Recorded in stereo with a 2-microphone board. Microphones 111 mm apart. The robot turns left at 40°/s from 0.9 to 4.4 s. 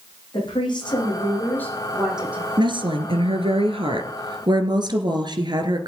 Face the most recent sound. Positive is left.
turn(degrees=-130)